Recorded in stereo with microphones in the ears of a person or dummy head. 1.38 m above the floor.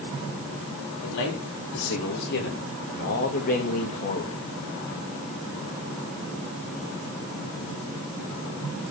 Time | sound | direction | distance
1.0 | a man speaking | 65° left (ahead or behind) | 3 m